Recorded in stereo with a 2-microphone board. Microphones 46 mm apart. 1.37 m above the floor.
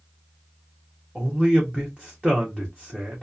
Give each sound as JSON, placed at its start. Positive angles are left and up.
{"t": 1.1, "sound": "a man speaking", "side_deg": -15, "distance_m": 0.7}